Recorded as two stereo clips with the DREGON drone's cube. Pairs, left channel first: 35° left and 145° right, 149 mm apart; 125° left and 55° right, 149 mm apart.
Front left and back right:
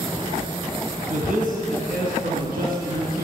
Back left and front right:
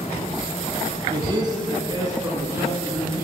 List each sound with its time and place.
1.1 s a man speaking: 115° right, 4.5 m; by 3.2 s 130° right, 7 m